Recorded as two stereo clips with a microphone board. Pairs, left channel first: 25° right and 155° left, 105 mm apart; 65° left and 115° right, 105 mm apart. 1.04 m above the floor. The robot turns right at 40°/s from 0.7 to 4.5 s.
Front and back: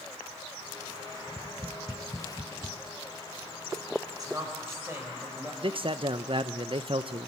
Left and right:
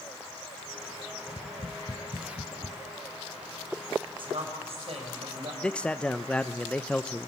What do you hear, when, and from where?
1.3 s tapping: 35° left, 1.3 m; by 2.8 s 95° left, 1.3 m
4.2 s a woman speaking: 150° right, 5 m; by 5.5 s 135° right, 5 m
5.6 s a man speaking: 145° left, 0.6 m